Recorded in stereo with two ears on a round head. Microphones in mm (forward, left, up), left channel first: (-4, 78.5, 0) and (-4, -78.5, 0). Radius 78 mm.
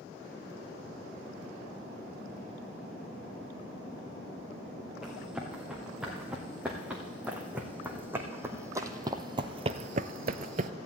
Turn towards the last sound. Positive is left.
turn(degrees=-45)  # may be behind; listen again after turning